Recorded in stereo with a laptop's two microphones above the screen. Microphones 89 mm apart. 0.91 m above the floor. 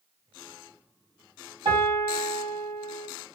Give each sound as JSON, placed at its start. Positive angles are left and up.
{"t": 1.6, "sound": "a piano", "side_deg": -55, "distance_m": 1.9}